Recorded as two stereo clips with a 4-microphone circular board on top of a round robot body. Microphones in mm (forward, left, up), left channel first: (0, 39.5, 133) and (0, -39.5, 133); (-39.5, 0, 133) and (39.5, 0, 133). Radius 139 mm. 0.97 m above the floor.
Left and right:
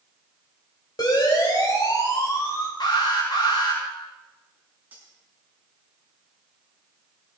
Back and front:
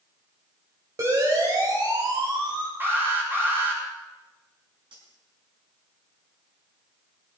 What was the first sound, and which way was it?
A siren, 50° left.